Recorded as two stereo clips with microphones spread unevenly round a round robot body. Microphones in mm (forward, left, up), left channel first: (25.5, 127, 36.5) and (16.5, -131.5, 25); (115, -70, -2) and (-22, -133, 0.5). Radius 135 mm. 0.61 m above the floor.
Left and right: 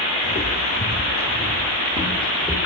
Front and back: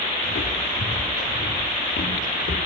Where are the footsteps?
25° left, 7 m; by 2.6 s 15° left, 8.5 m.